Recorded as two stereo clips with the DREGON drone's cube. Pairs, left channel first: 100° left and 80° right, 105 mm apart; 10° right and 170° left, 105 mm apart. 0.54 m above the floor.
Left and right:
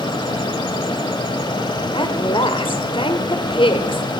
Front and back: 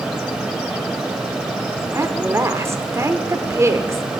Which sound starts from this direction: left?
A woman speaking, at 1.9 s.